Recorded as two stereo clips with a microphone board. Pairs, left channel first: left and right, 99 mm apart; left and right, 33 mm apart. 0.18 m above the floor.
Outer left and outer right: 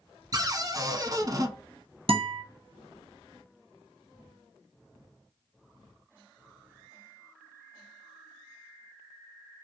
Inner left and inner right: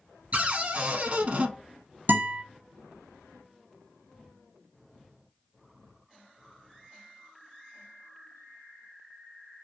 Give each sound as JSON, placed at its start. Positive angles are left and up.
{"t": 0.3, "sound": "a cupboard door", "side_deg": -40, "distance_m": 0.6}
{"t": 2.1, "sound": "a guitar", "side_deg": -75, "distance_m": 1.1}